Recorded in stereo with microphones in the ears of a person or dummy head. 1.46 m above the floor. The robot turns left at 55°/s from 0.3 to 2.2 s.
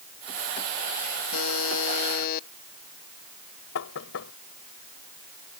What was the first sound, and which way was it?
A buzzer, 90° left.